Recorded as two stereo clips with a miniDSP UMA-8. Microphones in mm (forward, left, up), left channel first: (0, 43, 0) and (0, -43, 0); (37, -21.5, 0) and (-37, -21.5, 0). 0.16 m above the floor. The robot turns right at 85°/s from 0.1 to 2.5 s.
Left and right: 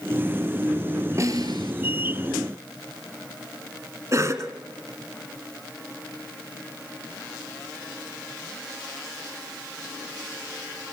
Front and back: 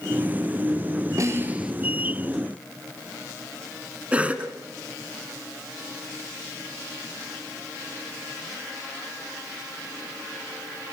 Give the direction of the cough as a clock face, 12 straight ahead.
4 o'clock.